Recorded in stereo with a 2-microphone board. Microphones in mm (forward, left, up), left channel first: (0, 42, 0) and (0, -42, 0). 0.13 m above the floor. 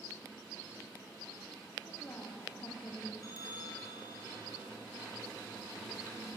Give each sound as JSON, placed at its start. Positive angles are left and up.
{"t": 1.9, "sound": "a woman speaking", "side_deg": 35, "distance_m": 6.0}
{"t": 3.2, "sound": "a bell", "side_deg": 45, "distance_m": 4.0}